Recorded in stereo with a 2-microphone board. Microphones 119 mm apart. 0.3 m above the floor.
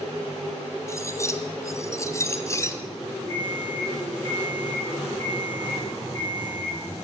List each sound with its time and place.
0.9 s cutlery clinking: 25° left (ahead or behind), 1.3 m
3.3 s an alarm clock: 40° right (ahead or behind), 5.5 m